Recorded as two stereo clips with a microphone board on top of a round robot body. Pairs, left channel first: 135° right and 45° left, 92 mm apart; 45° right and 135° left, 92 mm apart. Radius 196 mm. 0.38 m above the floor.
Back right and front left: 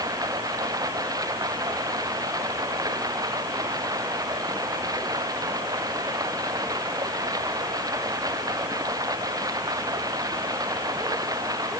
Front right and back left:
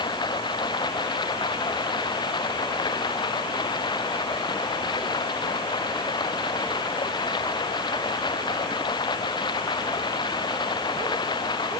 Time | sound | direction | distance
0.0 | running water | 5° right | ?